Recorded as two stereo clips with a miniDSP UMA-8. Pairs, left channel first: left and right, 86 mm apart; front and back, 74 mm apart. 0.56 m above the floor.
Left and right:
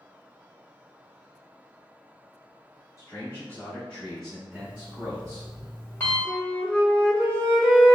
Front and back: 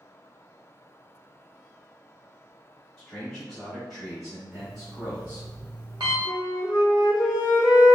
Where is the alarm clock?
155° left, 1.1 m.